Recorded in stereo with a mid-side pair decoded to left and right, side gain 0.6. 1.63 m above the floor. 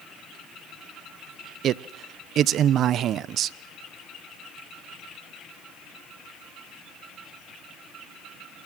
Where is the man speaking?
50° right, 0.9 m.